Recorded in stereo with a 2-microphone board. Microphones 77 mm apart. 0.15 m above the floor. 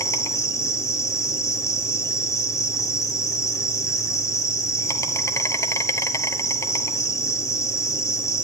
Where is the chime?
No chime in this recording.